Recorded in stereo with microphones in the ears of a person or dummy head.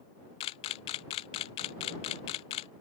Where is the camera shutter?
25° left (ahead or behind).